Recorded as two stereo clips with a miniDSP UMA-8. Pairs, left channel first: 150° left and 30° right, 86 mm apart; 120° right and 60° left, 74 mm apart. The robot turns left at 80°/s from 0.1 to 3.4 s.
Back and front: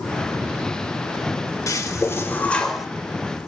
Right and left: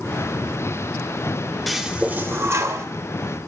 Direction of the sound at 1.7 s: 150° left.